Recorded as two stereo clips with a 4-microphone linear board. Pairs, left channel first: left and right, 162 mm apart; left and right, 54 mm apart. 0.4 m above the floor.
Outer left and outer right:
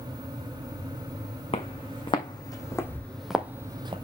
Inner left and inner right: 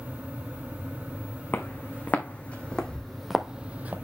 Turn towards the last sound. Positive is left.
turn(degrees=-35)  # may be behind; listen again after turning